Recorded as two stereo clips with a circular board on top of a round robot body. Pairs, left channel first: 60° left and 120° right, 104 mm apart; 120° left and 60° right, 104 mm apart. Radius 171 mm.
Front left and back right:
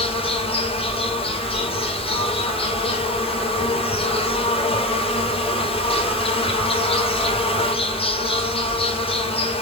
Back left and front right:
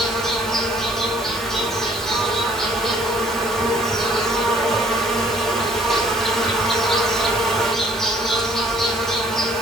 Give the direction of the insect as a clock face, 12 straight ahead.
11 o'clock.